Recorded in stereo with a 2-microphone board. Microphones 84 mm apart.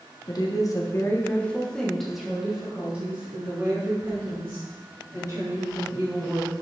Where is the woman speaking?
55° left (ahead or behind), 1.0 m; by 6.5 s 35° right (ahead or behind), 3.5 m.